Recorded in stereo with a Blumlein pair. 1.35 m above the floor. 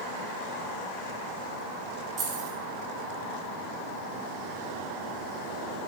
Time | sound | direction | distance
2.2 | keys jangling | 25° right | 2.0 m